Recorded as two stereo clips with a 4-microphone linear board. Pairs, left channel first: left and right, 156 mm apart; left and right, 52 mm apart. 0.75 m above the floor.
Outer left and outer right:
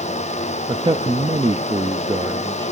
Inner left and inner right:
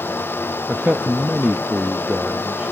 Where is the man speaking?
30° right (ahead or behind), 0.5 m.